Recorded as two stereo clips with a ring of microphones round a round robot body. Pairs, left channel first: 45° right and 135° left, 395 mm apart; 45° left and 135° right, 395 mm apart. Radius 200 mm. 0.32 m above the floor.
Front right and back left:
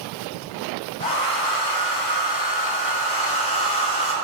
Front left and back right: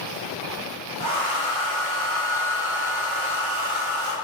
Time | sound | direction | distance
1.0 | a hair dryer | 120° right | 1.8 m